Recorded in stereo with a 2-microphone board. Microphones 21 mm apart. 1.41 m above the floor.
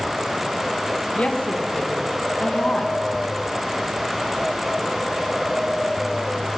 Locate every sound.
1.1 s a woman speaking: 85° left, 1.6 m